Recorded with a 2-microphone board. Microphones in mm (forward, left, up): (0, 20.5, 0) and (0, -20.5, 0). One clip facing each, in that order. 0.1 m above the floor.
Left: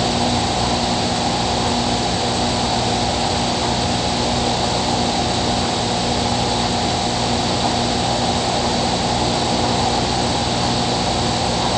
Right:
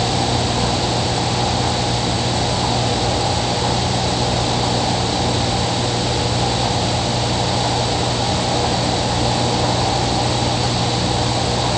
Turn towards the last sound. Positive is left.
No sound to turn to.